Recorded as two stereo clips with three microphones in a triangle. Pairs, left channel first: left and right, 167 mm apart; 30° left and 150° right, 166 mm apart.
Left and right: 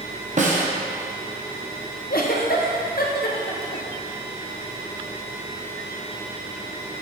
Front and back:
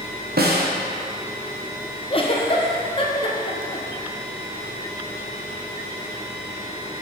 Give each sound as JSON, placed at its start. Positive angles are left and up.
{"t": 0.4, "sound": "a snare drum", "azimuth_deg": -135, "distance_m": 1.0}
{"t": 2.1, "sound": "a giggle", "azimuth_deg": 80, "distance_m": 0.7}